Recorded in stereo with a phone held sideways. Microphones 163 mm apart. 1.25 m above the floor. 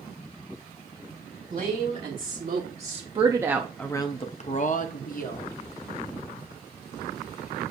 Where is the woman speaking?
60° right (ahead or behind), 1.4 m; by 5.5 s 65° left (ahead or behind), 1.2 m.